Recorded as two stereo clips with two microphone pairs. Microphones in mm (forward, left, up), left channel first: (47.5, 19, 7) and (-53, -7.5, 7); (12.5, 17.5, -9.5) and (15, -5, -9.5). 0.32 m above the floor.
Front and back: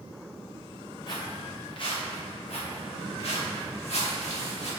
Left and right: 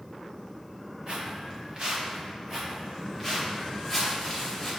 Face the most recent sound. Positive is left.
turn(degrees=15)